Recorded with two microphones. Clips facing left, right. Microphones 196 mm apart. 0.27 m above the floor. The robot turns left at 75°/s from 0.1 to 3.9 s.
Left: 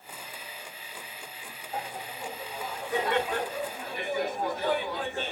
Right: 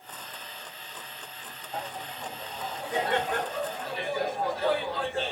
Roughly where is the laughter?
Ahead left.